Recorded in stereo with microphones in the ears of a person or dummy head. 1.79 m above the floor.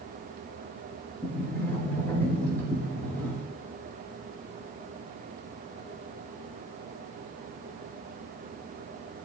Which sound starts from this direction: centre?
A sliding door, at 1.2 s.